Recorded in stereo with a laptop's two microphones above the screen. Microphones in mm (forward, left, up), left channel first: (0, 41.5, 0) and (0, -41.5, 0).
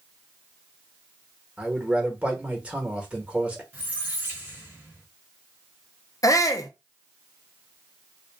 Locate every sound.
1.6 s a man speaking: 15° right (ahead or behind), 1.2 m
3.7 s a squeak: 20° right (ahead or behind), 1.4 m
6.2 s a shout: 45° left (ahead or behind), 0.7 m